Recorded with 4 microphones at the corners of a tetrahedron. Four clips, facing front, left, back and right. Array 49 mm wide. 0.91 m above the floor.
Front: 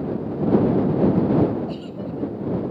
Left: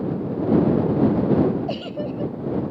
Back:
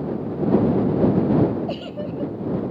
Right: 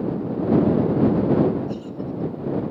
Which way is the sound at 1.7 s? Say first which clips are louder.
Left 2 dB, back 2 dB; 125° left.